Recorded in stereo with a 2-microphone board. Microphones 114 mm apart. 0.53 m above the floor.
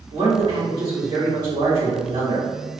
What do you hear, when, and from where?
0.1 s a man speaking: 40° right (ahead or behind), 1.7 m